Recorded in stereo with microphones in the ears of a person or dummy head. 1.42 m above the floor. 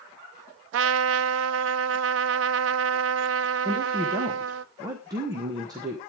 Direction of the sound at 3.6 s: 20° right (ahead or behind).